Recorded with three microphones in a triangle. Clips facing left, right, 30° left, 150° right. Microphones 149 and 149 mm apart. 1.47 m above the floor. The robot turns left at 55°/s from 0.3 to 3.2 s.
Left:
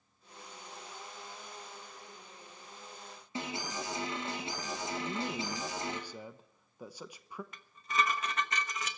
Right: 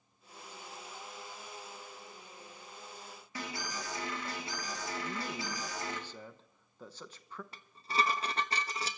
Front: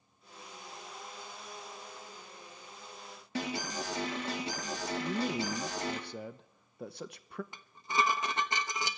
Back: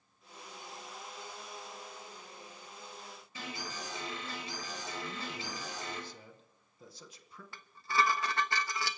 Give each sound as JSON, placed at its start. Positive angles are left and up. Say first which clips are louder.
{"t": 3.4, "sound": "an alarm", "louder": "left 3 dB, front 8 dB", "azimuth_deg": 25, "distance_m": 3.0}
{"t": 5.0, "sound": "a man speaking", "louder": "left 3 dB, front 9 dB", "azimuth_deg": 15, "distance_m": 0.9}
{"t": 7.5, "sound": "dishes clattering", "louder": "even, back 1 dB", "azimuth_deg": -40, "distance_m": 1.0}